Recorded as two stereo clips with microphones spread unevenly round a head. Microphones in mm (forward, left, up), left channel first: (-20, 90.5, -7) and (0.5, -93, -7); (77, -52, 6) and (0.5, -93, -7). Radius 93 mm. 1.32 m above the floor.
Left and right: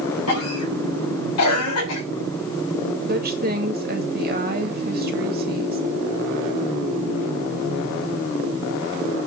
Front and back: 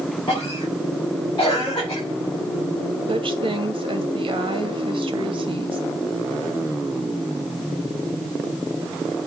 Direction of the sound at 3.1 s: 125° right.